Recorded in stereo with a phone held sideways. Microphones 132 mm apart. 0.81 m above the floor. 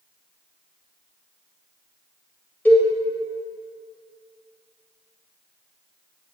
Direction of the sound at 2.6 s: 15° left (ahead or behind).